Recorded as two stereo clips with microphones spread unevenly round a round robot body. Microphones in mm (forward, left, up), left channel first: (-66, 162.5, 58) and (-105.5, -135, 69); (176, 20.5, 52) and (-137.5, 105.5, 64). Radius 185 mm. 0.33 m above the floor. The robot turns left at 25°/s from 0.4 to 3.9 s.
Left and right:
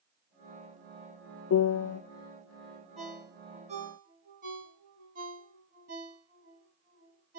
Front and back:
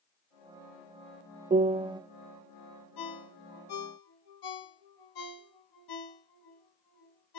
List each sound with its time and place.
1.5 s a piano: 100° left, 0.5 m; by 2.0 s 85° left, 0.5 m
3.0 s a ringtone: 5° right, 2.5 m; by 7.4 s 30° right, 2.5 m